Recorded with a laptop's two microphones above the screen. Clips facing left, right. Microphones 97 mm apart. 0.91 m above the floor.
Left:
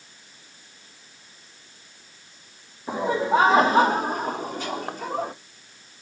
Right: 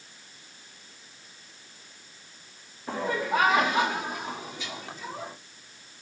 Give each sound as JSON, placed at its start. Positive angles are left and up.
{"t": 2.9, "sound": "laughter", "side_deg": 15, "distance_m": 1.1}